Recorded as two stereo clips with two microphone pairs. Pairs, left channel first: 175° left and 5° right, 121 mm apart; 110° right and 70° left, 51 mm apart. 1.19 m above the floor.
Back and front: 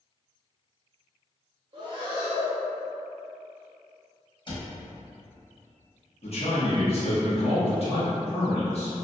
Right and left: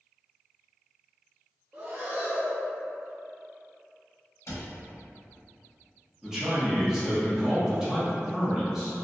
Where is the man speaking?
150° left, 1.0 m.